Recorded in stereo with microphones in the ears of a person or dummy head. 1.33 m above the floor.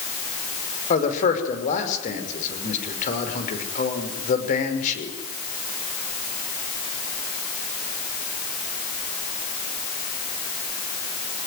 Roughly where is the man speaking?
Left.